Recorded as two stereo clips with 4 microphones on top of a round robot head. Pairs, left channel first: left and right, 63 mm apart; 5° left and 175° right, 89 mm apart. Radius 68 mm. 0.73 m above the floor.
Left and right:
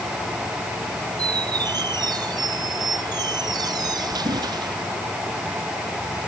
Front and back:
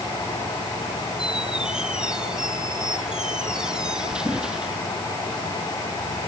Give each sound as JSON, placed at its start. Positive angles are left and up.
{"t": 1.2, "sound": "a squeak", "azimuth_deg": -95}